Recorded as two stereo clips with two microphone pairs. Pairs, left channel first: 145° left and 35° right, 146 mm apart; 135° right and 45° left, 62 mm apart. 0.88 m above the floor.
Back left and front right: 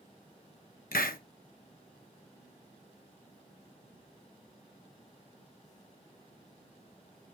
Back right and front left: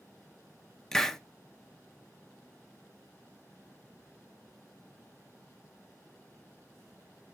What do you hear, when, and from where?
0.9 s a hiss: 140° left, 0.7 m